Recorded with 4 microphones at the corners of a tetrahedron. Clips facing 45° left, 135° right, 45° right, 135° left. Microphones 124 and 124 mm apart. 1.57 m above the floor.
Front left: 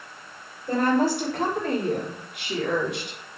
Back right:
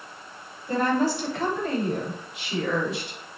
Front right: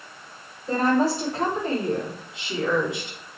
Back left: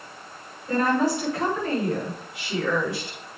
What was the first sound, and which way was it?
A woman speaking, 10° left.